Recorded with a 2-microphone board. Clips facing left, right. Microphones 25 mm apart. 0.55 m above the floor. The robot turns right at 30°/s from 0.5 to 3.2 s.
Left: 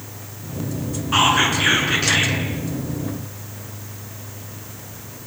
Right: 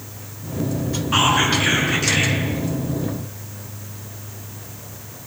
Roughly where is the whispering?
Ahead.